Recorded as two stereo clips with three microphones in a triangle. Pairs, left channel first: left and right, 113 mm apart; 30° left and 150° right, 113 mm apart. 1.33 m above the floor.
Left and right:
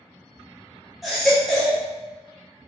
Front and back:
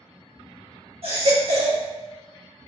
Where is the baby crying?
Straight behind, 1.3 m.